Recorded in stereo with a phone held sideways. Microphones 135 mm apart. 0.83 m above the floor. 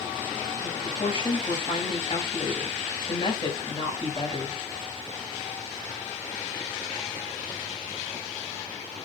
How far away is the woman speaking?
About 4.5 m.